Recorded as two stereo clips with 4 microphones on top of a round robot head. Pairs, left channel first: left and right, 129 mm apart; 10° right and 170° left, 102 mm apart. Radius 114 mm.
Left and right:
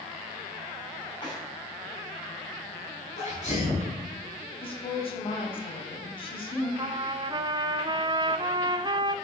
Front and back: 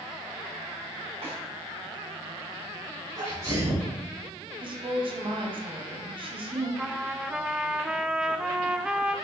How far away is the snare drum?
About 5.5 m.